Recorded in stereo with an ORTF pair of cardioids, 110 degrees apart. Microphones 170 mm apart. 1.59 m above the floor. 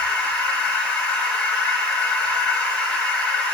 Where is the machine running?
5° left, 1.1 m.